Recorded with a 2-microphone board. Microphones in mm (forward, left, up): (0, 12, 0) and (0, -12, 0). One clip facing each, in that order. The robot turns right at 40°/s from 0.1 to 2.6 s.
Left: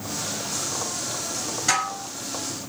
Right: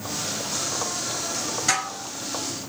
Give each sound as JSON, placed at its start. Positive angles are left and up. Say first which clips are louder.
{"t": 1.7, "sound": "dishes clattering", "louder": "left 3 dB", "side_deg": 0, "distance_m": 1.7}